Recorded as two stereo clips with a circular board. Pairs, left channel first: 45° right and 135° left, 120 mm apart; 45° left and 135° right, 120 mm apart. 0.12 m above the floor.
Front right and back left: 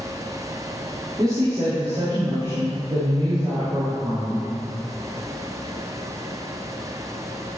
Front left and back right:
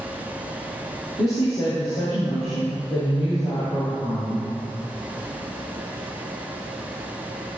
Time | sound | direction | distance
1.2 | a woman speaking | 80° left | 3.5 m